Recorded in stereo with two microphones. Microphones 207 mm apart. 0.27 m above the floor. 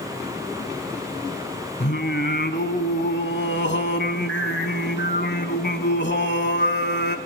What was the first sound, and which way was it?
Singing, 55° left (ahead or behind).